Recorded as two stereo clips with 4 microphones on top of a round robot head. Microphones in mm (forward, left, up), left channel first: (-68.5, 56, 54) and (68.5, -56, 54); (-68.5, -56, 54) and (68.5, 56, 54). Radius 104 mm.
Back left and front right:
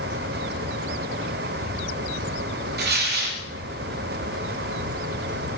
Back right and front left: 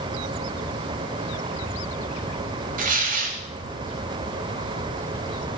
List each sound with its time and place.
2.8 s tearing paper: 5° right, 1.9 m